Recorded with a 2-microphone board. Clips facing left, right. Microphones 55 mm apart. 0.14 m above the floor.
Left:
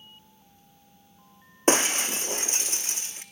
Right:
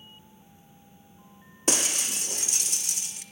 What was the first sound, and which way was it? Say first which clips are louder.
Breaking glass: left 7 dB; 35° left (ahead or behind).